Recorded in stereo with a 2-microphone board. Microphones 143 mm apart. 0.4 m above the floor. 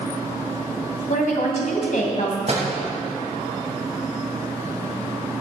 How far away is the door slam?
About 2.0 m.